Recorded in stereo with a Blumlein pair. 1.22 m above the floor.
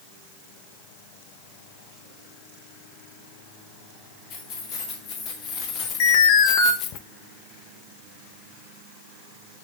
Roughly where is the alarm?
Ahead left.